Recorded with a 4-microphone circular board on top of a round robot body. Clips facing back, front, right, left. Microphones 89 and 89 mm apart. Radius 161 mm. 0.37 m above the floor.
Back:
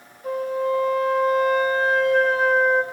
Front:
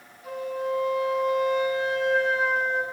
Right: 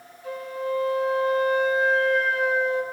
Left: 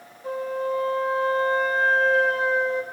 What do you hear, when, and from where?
0.2 s a flute: 140° left, 3 m